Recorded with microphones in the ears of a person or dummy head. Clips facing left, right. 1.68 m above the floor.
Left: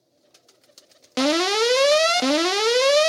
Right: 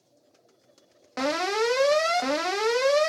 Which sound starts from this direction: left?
An alarm, at 1.2 s.